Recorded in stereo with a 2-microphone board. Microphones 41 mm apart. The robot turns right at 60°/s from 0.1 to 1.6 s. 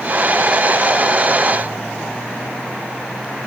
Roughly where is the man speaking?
No man speaking in this recording.